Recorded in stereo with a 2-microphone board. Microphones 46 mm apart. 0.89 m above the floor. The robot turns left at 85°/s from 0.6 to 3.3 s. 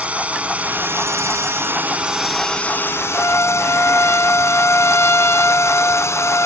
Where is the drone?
30° right (ahead or behind); by 6.5 s 85° left.